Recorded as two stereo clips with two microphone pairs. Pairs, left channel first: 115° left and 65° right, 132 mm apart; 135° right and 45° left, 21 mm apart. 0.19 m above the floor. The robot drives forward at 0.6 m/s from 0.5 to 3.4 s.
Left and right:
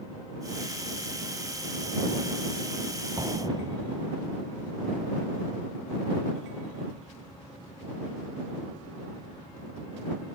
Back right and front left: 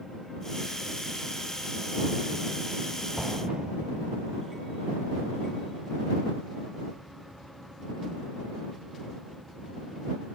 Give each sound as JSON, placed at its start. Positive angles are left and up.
{"t": 3.2, "sound": "an explosion", "azimuth_deg": -5}